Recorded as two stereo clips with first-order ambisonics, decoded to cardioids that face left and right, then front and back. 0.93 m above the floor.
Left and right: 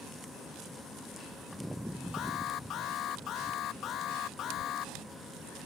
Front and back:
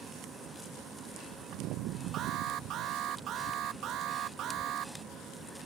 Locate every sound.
2.1 s an alarm: 135° left